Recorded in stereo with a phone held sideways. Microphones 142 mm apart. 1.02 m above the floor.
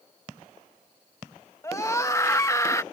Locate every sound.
1.6 s a scream: 20° left (ahead or behind)